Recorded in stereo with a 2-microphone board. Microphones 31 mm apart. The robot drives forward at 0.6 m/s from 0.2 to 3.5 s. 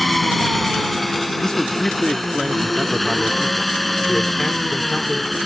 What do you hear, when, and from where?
0.0 s an engine running: centre (ahead or behind)
1.4 s a man speaking: 20° left (ahead or behind); by 5.4 s 10° left (ahead or behind)